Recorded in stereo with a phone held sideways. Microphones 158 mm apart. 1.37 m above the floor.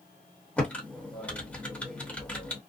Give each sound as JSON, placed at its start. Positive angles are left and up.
{"t": 0.6, "sound": "typing on a keyboard", "side_deg": 10, "distance_m": 1.0}